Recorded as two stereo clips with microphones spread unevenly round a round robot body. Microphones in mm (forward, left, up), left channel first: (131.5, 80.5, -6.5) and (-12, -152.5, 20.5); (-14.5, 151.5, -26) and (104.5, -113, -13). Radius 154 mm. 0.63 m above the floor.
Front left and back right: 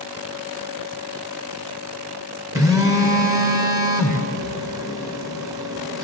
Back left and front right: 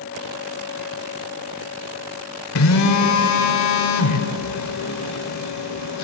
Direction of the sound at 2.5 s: 155° left.